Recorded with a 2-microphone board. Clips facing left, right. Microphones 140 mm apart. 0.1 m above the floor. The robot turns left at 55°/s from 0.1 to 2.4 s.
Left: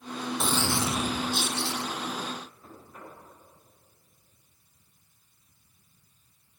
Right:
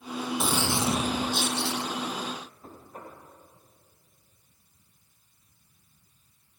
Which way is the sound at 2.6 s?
35° right (ahead or behind).